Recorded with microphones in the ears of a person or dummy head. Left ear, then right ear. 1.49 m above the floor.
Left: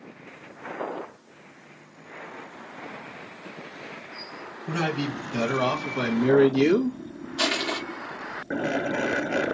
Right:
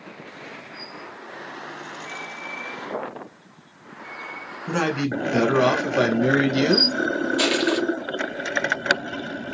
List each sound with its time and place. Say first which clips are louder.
4.7 s a man speaking: right 4 dB; 40° right (ahead or behind), 1.3 m; by 7.0 s 75° right (ahead or behind), 1.4 m
7.4 s crushing: right 2 dB; 15° right (ahead or behind), 1.1 m